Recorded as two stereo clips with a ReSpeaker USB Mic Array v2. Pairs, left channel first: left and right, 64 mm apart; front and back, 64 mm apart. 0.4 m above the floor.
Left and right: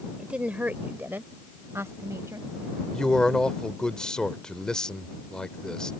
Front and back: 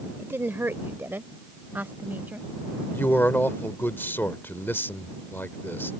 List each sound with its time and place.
0.2 s a woman speaking: 155° right; by 2.5 s 120° right
2.9 s a man speaking: 20° left